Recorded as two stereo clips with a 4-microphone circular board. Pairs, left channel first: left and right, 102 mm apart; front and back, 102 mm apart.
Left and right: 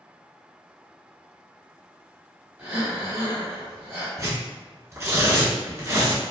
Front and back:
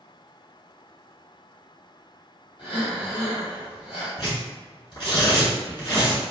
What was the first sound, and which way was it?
Breathing, 20° right.